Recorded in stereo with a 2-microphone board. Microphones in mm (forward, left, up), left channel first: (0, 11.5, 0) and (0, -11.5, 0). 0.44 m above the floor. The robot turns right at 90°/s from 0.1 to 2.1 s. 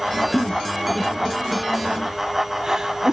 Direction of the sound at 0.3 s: 30° left (ahead or behind).